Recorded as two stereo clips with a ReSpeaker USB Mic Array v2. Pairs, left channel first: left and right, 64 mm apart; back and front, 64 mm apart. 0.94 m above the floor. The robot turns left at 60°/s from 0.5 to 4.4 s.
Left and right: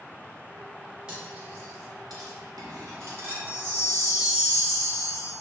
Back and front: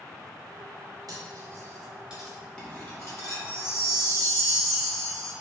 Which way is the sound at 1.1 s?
15° right.